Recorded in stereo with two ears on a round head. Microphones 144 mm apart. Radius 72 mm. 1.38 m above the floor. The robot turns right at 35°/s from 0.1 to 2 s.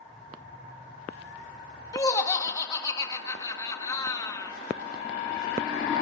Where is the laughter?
25° left (ahead or behind), 1.6 m; by 4.5 s 20° left (ahead or behind), 1.6 m.